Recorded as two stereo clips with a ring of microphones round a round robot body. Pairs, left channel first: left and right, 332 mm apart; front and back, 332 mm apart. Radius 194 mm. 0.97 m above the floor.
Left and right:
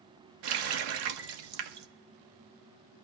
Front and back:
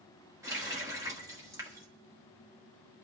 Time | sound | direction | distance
0.4 | a running tap | 100° right | 0.8 m